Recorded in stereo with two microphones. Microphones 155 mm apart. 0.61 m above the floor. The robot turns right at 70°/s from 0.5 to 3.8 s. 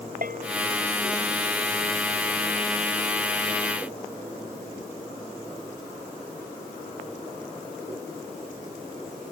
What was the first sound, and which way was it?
A bell, 65° right (ahead or behind).